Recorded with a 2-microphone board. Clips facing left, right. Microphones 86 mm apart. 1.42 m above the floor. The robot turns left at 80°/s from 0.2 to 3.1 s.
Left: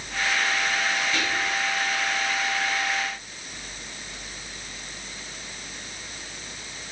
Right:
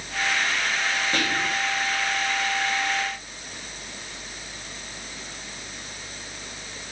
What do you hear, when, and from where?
1.1 s whispering: 50° right, 0.7 m; by 1.6 s 90° right, 0.7 m